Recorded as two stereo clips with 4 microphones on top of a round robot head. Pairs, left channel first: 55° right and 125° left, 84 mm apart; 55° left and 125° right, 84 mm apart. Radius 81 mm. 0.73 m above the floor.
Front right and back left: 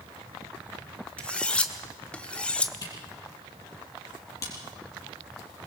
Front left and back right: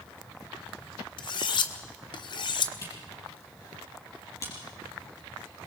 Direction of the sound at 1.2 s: 25° left.